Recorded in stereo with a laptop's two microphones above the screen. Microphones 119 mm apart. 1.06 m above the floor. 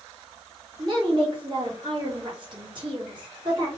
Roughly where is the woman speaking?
Right.